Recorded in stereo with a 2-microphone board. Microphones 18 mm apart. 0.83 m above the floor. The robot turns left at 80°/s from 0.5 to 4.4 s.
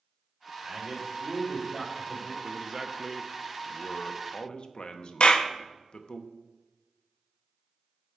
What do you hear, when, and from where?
0.6 s a man speaking: 85° right, 2 m; by 2.3 s 140° left, 2 m
2.4 s a man speaking: 120° right, 0.7 m; by 6.2 s 85° left, 0.7 m
5.2 s a clap: 65° left (ahead or behind), 0.6 m